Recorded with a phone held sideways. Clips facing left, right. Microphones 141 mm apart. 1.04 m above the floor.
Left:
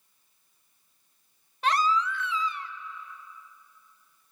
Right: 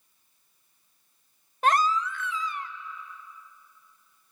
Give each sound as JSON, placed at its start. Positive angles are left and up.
{"t": 1.6, "sound": "a baby crying", "side_deg": -45, "distance_m": 0.7}